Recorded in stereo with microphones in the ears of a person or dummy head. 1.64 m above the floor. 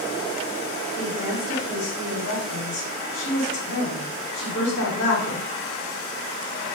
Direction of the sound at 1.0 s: 65° left (ahead or behind).